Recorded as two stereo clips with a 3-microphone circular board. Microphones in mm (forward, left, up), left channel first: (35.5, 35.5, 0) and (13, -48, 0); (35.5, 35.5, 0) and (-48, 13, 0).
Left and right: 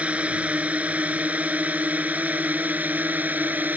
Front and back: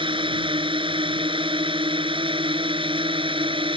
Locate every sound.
0.0 s a drone: straight behind; by 3.8 s 175° right